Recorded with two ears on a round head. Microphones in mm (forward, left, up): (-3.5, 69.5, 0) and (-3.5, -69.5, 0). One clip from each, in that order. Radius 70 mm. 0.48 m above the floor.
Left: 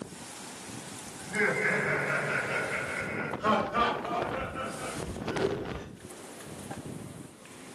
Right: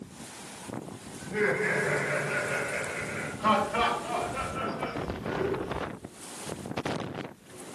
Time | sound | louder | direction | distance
1.2 | laughter | even | 30° left (ahead or behind) | 1.0 m
3.4 | laughter | right 2 dB | 20° right (ahead or behind) | 1.6 m